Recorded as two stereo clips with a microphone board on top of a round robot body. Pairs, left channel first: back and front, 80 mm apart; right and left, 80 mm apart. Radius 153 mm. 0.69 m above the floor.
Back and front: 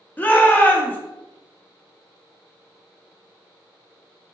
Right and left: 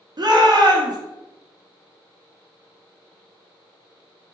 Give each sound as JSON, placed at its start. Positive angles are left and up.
{"t": 0.2, "sound": "a shout", "azimuth_deg": 115, "distance_m": 1.1}